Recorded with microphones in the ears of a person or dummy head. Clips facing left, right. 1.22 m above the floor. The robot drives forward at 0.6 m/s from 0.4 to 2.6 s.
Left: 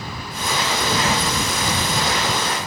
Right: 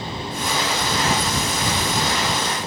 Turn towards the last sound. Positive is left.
No sound to turn to.